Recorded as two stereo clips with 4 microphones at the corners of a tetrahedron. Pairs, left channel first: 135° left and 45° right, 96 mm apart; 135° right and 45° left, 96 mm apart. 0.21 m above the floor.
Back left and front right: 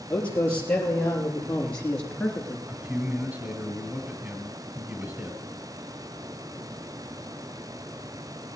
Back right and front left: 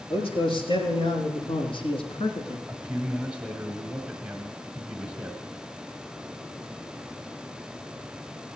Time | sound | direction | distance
0.1 | a man speaking | 150° right | 4.5 m
2.7 | a man speaking | 10° right | 1.7 m